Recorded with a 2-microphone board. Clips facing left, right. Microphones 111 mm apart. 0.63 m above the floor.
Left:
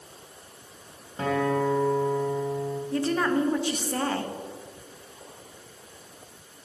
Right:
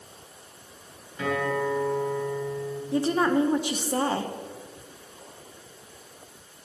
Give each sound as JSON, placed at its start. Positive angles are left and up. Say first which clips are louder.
{"t": 1.2, "sound": "a guitar", "louder": "left 2 dB", "side_deg": 40, "distance_m": 2.0}
{"t": 2.9, "sound": "a woman speaking", "louder": "right 3 dB", "side_deg": -20, "distance_m": 0.7}